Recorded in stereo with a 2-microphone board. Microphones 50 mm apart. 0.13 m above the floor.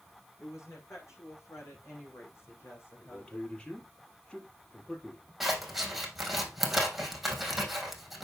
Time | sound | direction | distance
0.4 | a woman speaking | 70° left (ahead or behind) | 7.5 m
3.0 | a man speaking | 20° left (ahead or behind) | 4 m
5.4 | scissors | centre (ahead or behind) | 3 m